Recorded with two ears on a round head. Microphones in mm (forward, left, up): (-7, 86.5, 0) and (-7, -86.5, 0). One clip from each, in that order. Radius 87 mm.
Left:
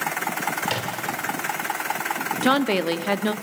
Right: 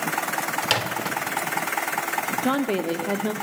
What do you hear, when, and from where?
0.6 s a microwave: 35° right (ahead or behind), 2 m
2.4 s a woman speaking: 45° left (ahead or behind), 1.3 m